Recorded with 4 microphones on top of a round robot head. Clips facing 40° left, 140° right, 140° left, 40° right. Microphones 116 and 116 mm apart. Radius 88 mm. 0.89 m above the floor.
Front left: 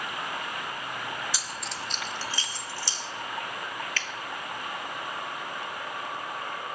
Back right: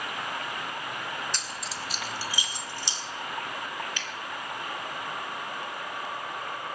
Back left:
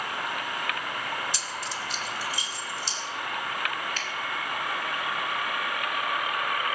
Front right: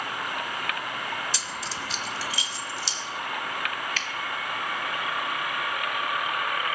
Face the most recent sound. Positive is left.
turn(degrees=-65)